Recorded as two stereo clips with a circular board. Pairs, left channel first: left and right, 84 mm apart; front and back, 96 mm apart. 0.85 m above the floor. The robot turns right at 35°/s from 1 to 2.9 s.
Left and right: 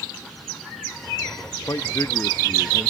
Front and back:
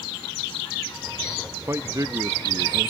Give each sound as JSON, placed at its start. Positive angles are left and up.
{"t": 1.7, "sound": "a man speaking", "azimuth_deg": 125, "distance_m": 0.7}